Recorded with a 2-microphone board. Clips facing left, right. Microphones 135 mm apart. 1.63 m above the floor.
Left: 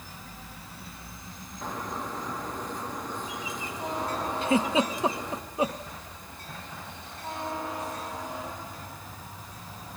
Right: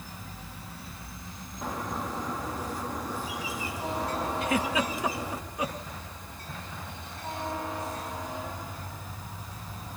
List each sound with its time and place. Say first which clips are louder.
1.6 s a bird: right 1 dB; 5° right (ahead or behind), 2 m
4.4 s a giggle: left 5 dB; 25° left (ahead or behind), 1.0 m